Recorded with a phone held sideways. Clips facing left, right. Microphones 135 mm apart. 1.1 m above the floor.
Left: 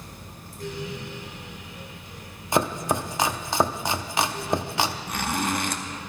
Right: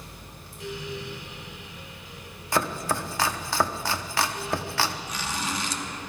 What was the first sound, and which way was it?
A fan, 45° left (ahead or behind).